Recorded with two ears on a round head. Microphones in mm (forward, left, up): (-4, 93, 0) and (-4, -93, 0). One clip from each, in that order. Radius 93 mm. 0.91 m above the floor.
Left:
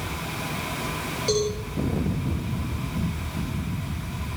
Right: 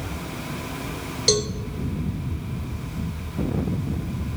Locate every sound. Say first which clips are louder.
1.3 s a cowbell: right 3 dB; 70° right (ahead or behind), 3.5 m